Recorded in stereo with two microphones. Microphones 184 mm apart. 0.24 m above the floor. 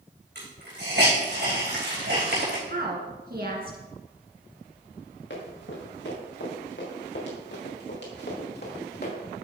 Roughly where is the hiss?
Right.